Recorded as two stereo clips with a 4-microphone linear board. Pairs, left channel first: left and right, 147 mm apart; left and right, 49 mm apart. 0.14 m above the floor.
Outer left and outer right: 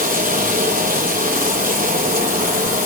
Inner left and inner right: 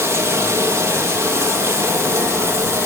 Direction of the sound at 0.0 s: 75° right (ahead or behind).